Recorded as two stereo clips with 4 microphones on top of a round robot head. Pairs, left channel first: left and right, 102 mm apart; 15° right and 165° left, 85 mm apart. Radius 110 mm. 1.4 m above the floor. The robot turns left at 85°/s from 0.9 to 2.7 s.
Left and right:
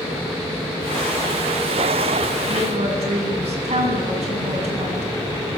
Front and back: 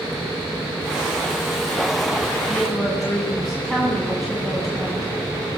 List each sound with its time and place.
2.5 s a woman speaking: 85° right, 10 m; by 5.1 s 105° right, 10 m